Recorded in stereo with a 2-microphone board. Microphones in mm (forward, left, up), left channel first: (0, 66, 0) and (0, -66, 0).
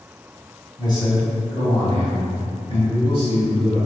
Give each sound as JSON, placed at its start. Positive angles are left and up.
{"t": 0.8, "sound": "a man speaking", "side_deg": 35, "distance_m": 1.7}